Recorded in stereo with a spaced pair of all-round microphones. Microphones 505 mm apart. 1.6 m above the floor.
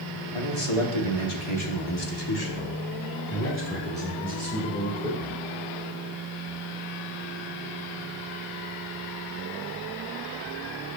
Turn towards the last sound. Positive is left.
turn(degrees=5)  # may be behind; listen again after turning